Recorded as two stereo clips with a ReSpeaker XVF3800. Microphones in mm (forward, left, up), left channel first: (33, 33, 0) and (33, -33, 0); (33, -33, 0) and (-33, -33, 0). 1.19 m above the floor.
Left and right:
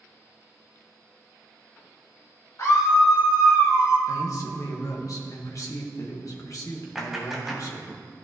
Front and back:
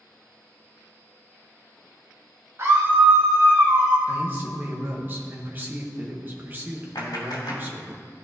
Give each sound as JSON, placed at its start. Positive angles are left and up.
{"t": 2.6, "sound": "a scream", "azimuth_deg": 130, "distance_m": 2.5}
{"t": 4.1, "sound": "a man speaking", "azimuth_deg": 120, "distance_m": 1.6}
{"t": 7.0, "sound": "a clap", "azimuth_deg": 0, "distance_m": 2.5}